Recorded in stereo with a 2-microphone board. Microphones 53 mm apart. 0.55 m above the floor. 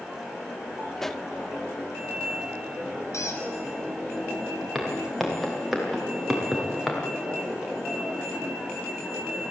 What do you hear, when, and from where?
1.0 s a pop: 5° left (ahead or behind), 0.6 m
3.1 s a squeak: 85° left, 3 m
4.8 s footsteps: 5° left (ahead or behind), 7 m; by 7.0 s centre (ahead or behind), 6 m